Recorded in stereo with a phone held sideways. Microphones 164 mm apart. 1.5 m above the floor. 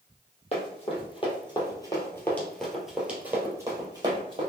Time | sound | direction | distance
0.5 | running footsteps | 45° left (ahead or behind) | 2.0 m